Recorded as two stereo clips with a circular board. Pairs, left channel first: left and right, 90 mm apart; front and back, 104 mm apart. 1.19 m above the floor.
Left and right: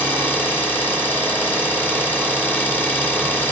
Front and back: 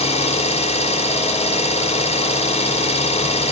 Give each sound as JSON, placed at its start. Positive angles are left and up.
{"t": 0.0, "sound": "an engine running", "azimuth_deg": 15, "distance_m": 2.5}